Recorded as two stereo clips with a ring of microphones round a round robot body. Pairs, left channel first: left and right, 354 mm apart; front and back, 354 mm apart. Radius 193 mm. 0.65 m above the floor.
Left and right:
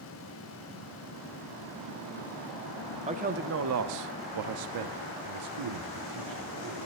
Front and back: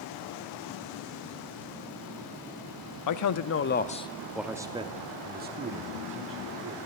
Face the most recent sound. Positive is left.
turn(degrees=-125)